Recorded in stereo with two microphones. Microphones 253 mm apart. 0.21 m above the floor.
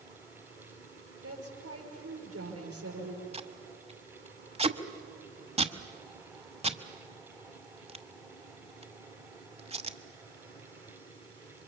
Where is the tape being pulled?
25° right (ahead or behind), 1.1 m.